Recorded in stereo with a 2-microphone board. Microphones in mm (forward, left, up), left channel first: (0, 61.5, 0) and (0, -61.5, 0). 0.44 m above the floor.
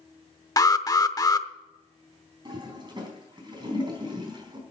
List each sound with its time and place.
0.6 s an alarm: 30° left (ahead or behind), 0.7 m
2.5 s a toilet flushing: 40° right (ahead or behind), 3.5 m